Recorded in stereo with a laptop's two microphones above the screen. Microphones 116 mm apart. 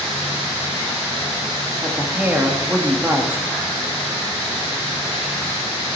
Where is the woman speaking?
15° right (ahead or behind), 1.2 m.